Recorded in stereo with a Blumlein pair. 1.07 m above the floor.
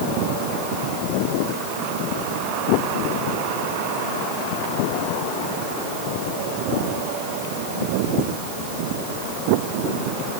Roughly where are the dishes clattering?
I don't hear dishes clattering.